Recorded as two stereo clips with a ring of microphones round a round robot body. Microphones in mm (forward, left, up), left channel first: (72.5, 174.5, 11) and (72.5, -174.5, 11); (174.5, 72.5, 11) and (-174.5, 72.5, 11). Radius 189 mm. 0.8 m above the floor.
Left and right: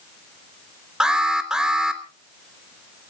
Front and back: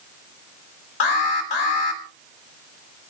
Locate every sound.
1.0 s an alarm: straight ahead, 3 m